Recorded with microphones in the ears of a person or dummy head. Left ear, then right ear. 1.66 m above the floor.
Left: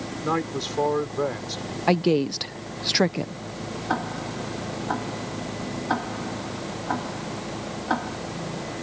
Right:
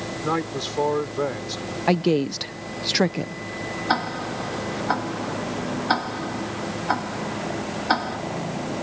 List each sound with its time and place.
0.2 s a man speaking: centre (ahead or behind)
1.9 s a woman speaking: 5° left (ahead or behind)
3.9 s ticking: 75° right (ahead or behind)